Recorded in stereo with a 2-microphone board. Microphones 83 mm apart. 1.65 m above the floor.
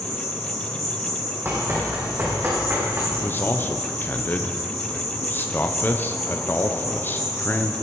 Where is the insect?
40° left (ahead or behind), 6 m.